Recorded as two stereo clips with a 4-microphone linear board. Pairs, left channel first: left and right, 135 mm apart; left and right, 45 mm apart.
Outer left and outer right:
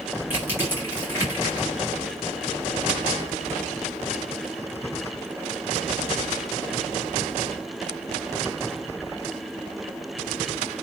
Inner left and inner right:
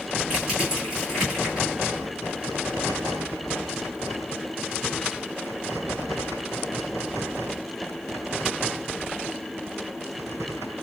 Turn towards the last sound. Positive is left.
turn(degrees=-15)  # may be behind; listen again after turning